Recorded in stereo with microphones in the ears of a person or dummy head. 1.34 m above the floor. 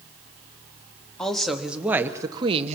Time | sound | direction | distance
1.2 | a woman speaking | 5° left (ahead or behind) | 2.0 m